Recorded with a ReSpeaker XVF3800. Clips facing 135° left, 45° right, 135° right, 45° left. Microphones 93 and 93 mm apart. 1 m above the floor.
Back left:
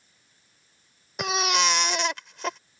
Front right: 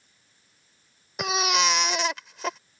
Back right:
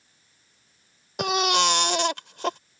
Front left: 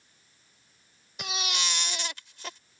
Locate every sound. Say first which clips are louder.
1.2 s a baby crying: even, back right 13 dB; 135° right